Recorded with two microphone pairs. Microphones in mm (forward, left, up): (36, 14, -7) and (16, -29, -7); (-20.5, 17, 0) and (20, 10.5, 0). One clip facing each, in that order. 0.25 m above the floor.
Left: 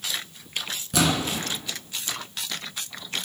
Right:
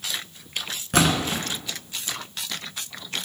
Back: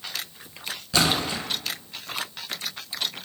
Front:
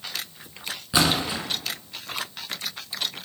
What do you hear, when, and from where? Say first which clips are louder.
0.9 s a splash: right 2 dB, front 1 dB; 80° right, 2.5 m